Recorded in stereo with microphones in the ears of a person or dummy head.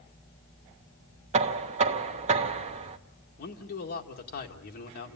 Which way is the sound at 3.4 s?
55° left (ahead or behind).